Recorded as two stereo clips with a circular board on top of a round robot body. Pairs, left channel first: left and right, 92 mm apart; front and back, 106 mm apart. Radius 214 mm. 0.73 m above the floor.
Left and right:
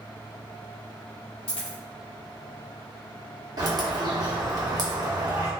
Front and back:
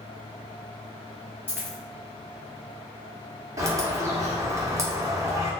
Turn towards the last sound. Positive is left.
turn(degrees=-125)